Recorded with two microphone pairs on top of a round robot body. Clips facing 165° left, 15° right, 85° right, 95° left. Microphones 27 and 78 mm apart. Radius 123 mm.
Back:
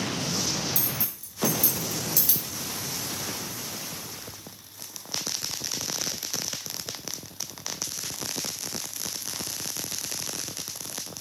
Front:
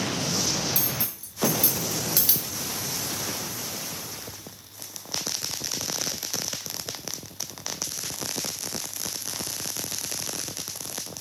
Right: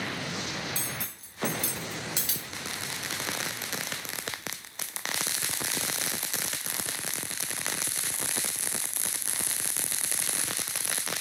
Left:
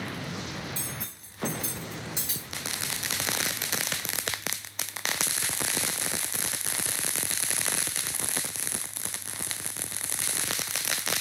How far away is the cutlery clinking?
About 1.0 m.